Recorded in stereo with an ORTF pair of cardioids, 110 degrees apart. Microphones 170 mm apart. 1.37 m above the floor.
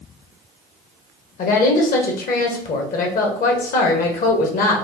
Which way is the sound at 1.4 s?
60° left.